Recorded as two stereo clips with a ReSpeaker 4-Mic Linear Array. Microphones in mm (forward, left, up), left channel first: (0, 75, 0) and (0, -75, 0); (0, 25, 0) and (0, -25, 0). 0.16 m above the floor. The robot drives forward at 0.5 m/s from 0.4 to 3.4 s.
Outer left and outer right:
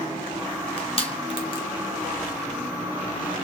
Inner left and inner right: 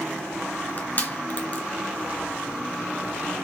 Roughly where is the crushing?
Left.